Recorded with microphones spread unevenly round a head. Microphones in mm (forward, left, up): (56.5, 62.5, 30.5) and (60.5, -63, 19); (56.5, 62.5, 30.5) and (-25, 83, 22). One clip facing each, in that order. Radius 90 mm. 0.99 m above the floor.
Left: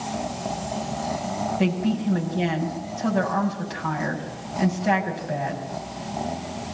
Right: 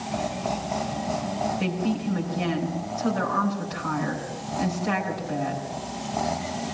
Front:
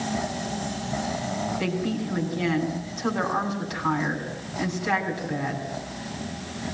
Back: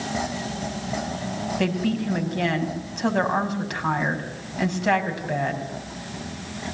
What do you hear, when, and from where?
1.6 s a woman speaking: 140° left, 6 m